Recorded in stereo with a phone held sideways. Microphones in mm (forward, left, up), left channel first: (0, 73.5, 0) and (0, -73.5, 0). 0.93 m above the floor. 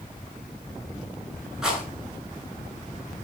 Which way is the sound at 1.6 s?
Centre (ahead or behind).